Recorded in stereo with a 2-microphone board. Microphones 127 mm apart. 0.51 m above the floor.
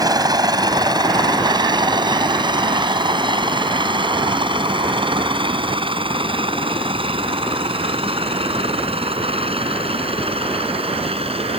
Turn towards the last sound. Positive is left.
turn(degrees=-50)  # may be behind; listen again after turning